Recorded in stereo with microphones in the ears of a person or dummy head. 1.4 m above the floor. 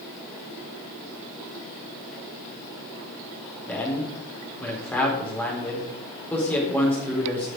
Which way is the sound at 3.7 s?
10° left (ahead or behind).